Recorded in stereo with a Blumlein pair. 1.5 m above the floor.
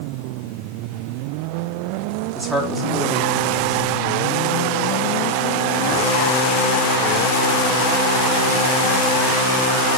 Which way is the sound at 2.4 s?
15° right.